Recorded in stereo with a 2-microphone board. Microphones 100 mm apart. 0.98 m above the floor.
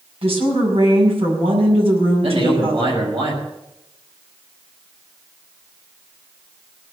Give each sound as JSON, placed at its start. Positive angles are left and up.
{"t": 0.2, "sound": "a woman speaking", "side_deg": -80, "distance_m": 6.5}
{"t": 2.2, "sound": "a man speaking", "side_deg": -65, "distance_m": 6.0}